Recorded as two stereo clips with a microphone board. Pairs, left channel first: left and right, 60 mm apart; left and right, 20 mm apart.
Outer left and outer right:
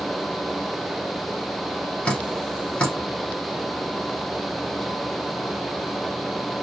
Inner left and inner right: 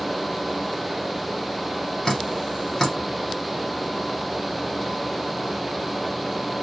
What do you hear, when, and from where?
2.0 s dripping: 20° left (ahead or behind), 1.4 m